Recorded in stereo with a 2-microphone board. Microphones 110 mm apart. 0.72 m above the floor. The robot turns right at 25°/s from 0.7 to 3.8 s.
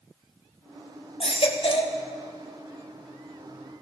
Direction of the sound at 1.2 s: 60° left (ahead or behind).